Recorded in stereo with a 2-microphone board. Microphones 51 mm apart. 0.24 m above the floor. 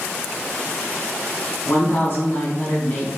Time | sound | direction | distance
1.6 | a woman speaking | 50° left (ahead or behind) | 1.7 m